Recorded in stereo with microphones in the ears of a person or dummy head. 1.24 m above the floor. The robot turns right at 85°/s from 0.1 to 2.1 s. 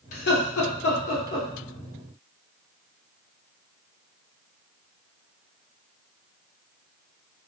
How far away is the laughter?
About 0.9 m.